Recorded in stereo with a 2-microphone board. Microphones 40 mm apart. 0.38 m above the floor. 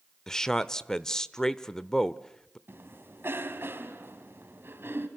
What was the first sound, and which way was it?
A man speaking, 15° left (ahead or behind).